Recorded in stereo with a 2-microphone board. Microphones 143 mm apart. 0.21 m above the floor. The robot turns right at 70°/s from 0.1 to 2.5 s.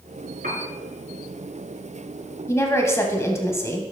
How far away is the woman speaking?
About 1.0 m.